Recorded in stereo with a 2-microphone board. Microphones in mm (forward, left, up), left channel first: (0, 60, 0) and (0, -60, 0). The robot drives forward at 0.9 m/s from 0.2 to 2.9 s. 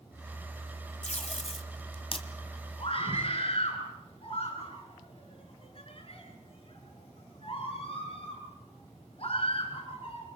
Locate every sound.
1.0 s tape being pulled: 75° left (ahead or behind), 1.8 m; by 2.3 s 45° left (ahead or behind), 2.5 m
2.8 s a scream: 50° left (ahead or behind), 7.5 m